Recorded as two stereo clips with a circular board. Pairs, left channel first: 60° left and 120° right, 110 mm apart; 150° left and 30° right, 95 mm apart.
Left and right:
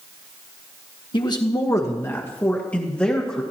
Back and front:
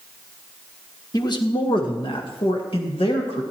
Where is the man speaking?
105° left, 1.3 m; by 3.4 s 145° left, 2.5 m.